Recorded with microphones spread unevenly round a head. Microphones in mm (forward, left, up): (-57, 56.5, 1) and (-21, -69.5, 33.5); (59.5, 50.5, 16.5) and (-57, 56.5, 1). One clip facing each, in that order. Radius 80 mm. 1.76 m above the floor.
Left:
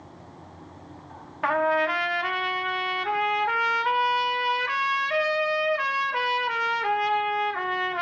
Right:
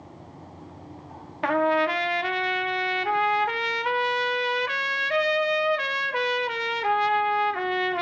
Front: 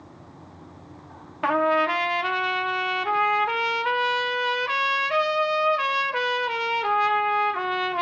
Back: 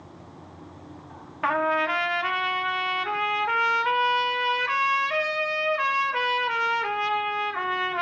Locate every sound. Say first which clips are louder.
1.4 s a trumpet: right 1 dB, front 3 dB; 50° right, 0.5 m